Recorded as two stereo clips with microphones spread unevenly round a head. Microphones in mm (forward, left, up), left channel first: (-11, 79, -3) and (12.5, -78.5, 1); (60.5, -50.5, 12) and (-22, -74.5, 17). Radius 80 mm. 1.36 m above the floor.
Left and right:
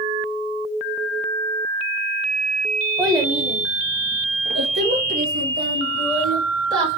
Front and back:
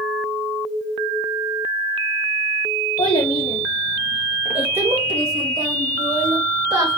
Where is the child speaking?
5° right, 0.9 m; by 7.0 s 125° right, 3 m.